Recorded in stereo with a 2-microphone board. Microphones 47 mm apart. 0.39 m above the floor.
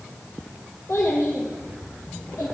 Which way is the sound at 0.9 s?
70° left (ahead or behind).